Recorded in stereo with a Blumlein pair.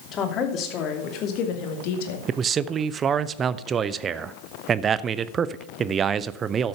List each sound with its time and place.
0.1 s a woman speaking: 30° left, 3 m; by 2.2 s 50° left, 2 m
2.3 s a man speaking: 25° right, 0.6 m